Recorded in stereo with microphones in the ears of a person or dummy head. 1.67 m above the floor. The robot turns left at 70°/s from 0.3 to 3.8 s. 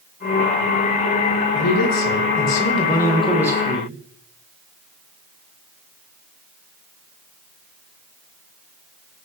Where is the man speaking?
120° left, 1.2 m; by 4.0 s 35° right, 1.2 m.